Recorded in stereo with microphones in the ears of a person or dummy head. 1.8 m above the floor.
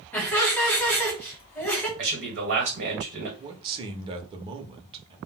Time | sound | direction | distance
0.1 | laughter | 10° left (ahead or behind) | 1.1 m
2.0 | a man speaking | 55° right (ahead or behind) | 1.3 m
3.4 | a man speaking | 25° right (ahead or behind) | 0.6 m